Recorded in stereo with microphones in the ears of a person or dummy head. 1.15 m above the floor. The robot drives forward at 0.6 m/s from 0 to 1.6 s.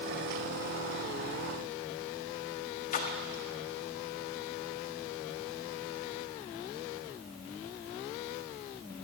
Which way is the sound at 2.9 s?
45° left (ahead or behind).